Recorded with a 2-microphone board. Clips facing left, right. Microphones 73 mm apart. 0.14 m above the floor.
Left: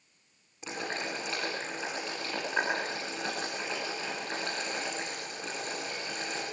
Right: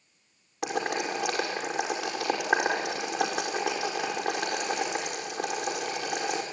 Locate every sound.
0.6 s boiling: 75° right (ahead or behind), 5 m